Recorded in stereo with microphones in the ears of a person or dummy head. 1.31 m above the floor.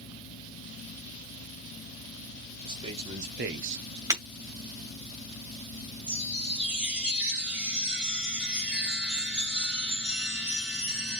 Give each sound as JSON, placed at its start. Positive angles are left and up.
{"t": 2.6, "sound": "a man speaking", "side_deg": -25, "distance_m": 1.6}
{"t": 4.1, "sound": "breaking glass", "side_deg": -25, "distance_m": 2.0}
{"t": 6.1, "sound": "a chime", "side_deg": -10, "distance_m": 4.0}